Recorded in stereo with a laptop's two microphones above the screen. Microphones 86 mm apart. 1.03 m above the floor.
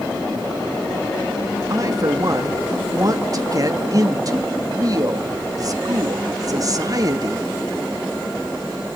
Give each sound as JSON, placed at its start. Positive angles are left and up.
{"t": 1.7, "sound": "a woman speaking", "side_deg": -45, "distance_m": 2.0}